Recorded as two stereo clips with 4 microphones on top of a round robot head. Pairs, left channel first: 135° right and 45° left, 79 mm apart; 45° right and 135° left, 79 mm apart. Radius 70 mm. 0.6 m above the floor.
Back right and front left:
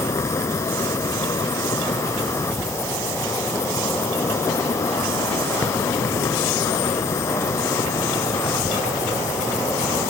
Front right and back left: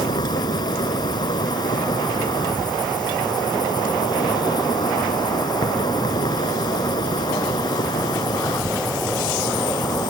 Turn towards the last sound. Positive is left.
turn(degrees=-80)